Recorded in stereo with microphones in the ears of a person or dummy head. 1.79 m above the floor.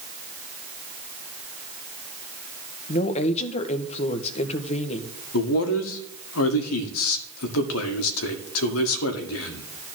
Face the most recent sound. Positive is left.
turn(degrees=85)